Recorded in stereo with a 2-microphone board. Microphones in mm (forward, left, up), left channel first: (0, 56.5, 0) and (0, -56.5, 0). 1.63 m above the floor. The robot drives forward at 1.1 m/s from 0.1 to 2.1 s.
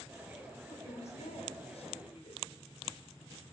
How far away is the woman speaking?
About 5.5 m.